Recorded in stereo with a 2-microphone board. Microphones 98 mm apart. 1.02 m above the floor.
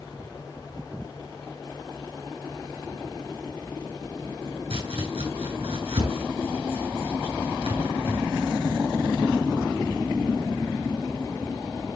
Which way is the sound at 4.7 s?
85° right.